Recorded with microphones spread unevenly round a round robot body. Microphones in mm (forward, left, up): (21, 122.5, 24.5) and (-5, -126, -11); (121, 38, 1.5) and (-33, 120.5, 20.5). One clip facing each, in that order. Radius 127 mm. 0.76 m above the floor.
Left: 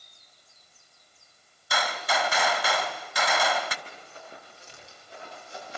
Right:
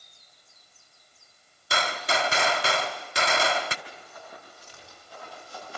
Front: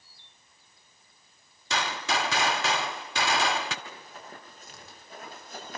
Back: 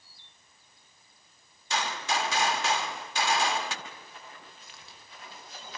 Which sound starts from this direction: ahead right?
A gunshot, at 1.7 s.